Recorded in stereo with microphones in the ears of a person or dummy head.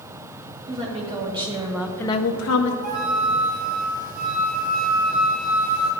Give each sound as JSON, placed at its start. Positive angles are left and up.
{"t": 0.7, "sound": "a woman speaking", "side_deg": -40, "distance_m": 2.5}
{"t": 2.8, "sound": "a flute", "side_deg": -55, "distance_m": 1.8}